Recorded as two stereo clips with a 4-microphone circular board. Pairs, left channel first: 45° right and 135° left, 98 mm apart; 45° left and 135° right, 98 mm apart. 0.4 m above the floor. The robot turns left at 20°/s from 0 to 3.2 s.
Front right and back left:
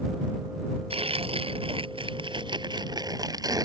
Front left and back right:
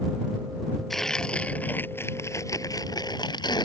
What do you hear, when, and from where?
0.9 s tearing paper: 135° left; by 3.6 s 85° left